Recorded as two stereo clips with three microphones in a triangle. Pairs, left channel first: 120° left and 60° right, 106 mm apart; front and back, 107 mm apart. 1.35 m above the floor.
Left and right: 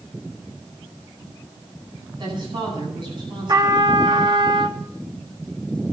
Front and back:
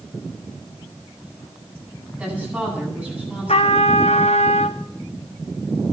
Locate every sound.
2.2 s a woman speaking: 105° right, 9.5 m
3.5 s a trumpet: 10° right, 1.3 m